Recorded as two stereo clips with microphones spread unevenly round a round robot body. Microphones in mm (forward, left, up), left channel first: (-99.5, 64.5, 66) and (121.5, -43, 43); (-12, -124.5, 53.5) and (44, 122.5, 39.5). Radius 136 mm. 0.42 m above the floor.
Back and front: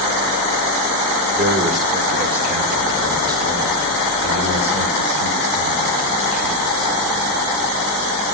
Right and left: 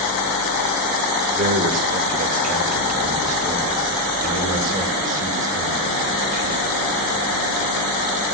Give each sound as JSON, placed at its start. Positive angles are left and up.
{"t": 1.4, "sound": "a man speaking", "azimuth_deg": 30, "distance_m": 2.0}